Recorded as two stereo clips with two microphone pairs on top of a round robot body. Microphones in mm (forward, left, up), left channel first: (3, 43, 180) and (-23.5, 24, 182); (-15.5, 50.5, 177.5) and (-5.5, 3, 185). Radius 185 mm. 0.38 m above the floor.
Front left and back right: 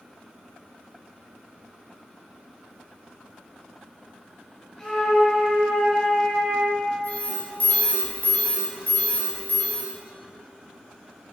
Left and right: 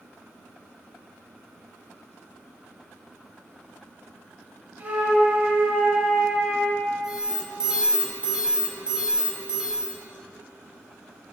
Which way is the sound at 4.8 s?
40° right.